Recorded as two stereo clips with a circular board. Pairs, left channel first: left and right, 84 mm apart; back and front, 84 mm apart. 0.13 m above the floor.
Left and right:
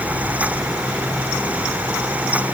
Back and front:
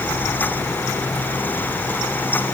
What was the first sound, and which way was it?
Only background noise.